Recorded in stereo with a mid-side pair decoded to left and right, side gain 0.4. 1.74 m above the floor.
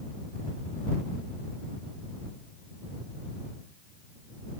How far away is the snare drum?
I don't hear a snare drum.